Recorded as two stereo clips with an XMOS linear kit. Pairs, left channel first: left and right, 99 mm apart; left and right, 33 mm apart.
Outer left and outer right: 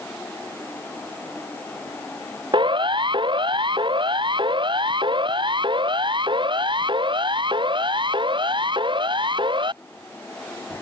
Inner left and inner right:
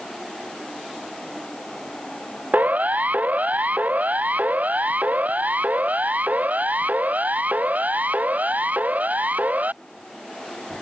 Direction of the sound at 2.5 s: 55° right (ahead or behind).